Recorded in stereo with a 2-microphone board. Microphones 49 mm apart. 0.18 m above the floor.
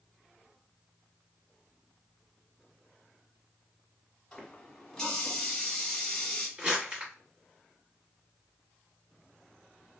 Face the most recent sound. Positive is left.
turn(degrees=-20)  # may be behind; listen again after turning